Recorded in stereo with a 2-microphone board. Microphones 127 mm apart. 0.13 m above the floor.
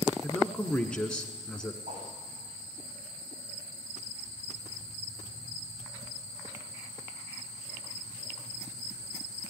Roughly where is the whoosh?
Right.